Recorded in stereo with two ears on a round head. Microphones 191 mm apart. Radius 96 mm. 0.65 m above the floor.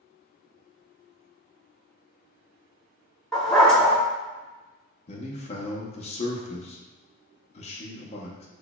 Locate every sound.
3.3 s a dog barking: centre (ahead or behind), 0.7 m
5.1 s a man speaking: 30° left (ahead or behind), 0.5 m